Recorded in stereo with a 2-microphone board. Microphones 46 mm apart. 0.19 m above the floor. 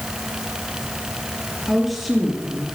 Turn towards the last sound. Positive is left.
turn(degrees=0)  # may be behind; listen again after turning